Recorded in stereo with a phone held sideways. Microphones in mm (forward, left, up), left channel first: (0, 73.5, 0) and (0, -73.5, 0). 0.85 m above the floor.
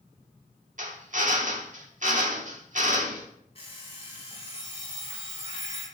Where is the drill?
55° right (ahead or behind), 1.3 m.